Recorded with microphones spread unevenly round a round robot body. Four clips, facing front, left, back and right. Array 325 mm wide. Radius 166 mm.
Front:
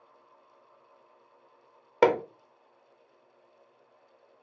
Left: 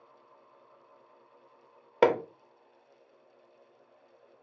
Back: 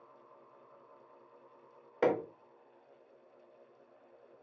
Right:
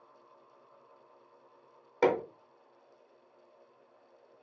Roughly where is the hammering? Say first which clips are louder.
Left 3 dB, front 7 dB; ahead left.